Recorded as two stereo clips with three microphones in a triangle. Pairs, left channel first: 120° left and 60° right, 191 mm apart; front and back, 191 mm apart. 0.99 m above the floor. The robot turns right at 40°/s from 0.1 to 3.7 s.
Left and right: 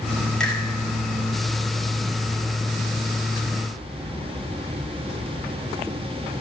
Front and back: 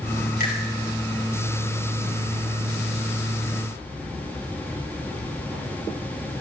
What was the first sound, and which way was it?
A finger snap, 35° left.